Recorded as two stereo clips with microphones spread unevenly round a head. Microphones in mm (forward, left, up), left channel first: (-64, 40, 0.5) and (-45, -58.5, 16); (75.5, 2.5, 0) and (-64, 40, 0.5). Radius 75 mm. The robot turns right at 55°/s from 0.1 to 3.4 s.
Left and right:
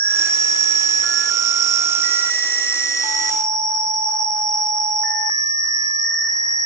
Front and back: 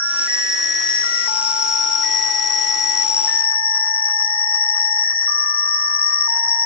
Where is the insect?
135° right, 1.0 m; by 6.7 s 45° left, 1.0 m.